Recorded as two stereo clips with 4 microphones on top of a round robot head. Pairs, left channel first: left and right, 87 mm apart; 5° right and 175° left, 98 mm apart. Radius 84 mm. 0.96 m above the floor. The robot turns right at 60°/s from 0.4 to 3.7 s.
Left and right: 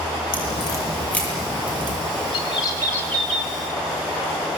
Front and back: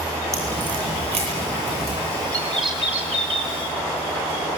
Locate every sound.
0.3 s a crack: 120° left, 8 m; by 2.0 s 150° right, 8 m
2.3 s a bird: 115° left, 4 m; by 3.5 s 170° right, 4 m